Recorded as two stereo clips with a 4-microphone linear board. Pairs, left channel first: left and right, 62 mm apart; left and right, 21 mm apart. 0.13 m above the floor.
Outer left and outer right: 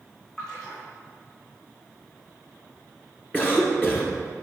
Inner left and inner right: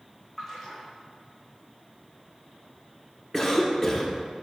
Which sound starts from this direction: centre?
A splash, at 0.4 s.